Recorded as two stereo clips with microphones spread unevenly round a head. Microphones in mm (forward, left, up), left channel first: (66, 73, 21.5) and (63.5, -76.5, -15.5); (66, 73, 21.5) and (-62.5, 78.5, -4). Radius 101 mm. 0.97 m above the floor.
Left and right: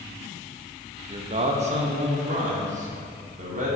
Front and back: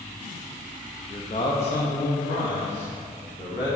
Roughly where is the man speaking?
Ahead right.